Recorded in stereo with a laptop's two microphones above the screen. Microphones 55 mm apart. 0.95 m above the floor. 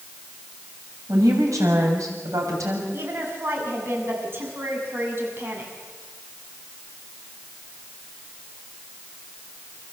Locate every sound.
1.1 s a woman speaking: 80° right, 6.5 m; by 2.8 s 75° right (ahead or behind), 6.5 m
2.9 s a woman speaking: 45° right (ahead or behind), 7 m